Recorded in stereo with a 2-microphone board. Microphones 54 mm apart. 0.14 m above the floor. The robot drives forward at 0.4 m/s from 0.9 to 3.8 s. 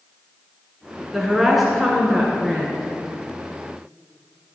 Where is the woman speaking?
5° right (ahead or behind), 1.4 m; by 2.9 s centre (ahead or behind), 1.9 m.